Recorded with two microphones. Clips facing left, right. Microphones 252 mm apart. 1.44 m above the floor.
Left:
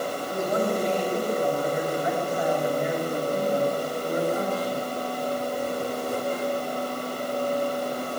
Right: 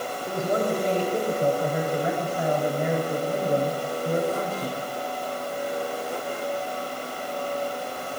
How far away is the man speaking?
About 9 m.